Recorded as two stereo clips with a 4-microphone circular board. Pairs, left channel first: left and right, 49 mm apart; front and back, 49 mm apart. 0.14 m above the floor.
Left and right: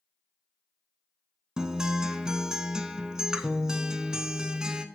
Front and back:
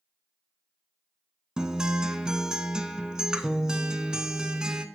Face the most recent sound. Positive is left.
turn(degrees=-135)